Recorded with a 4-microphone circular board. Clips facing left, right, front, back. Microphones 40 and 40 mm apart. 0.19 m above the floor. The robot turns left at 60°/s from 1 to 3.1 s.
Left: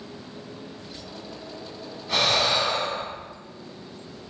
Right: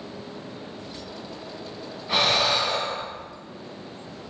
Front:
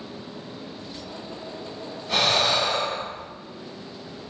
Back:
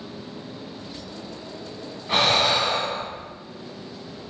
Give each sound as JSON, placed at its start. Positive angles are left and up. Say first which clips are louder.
{"t": 2.1, "sound": "breathing", "louder": "right 1 dB, back 2 dB", "azimuth_deg": -150, "distance_m": 0.9}